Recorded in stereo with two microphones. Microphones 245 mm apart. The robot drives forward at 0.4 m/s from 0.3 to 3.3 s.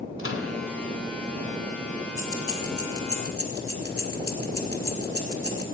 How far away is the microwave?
About 1.3 m.